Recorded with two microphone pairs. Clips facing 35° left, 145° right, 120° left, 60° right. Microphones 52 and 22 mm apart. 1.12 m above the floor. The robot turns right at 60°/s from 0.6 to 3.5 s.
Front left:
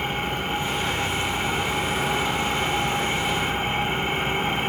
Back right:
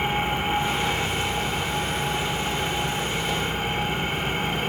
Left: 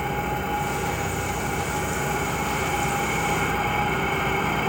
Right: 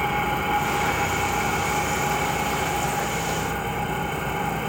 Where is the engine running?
80° right, 2.5 m; by 4.7 s 95° left, 2.5 m.